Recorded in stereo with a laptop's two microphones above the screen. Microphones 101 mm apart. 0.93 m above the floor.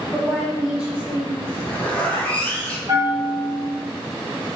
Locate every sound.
0.1 s a woman speaking: 5° left (ahead or behind), 1.8 m; by 1.3 s 15° right (ahead or behind), 2.5 m
1.4 s a zipper: 15° left (ahead or behind), 1.2 m
2.9 s a bell: 40° right (ahead or behind), 1.5 m